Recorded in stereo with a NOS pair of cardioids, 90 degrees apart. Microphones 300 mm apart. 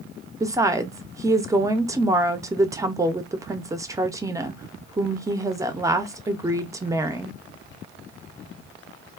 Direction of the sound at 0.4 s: 10° right.